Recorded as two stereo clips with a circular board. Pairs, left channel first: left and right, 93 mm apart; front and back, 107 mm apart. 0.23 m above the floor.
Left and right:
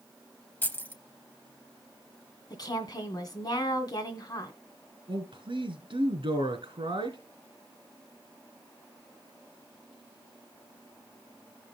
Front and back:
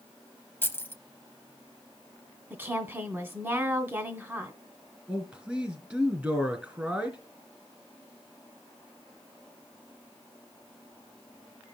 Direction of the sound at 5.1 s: 105° right.